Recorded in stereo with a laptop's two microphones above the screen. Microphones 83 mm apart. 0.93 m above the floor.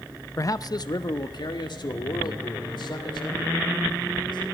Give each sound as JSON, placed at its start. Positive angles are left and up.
{"t": 0.4, "sound": "a man speaking", "side_deg": 40, "distance_m": 0.5}